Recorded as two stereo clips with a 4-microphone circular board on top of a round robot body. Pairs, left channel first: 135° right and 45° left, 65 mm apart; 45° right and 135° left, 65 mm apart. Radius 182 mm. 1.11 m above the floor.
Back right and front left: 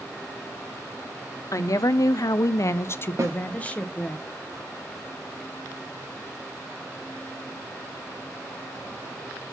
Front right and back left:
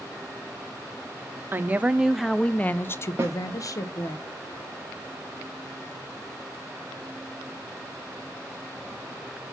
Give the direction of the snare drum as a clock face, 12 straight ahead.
9 o'clock.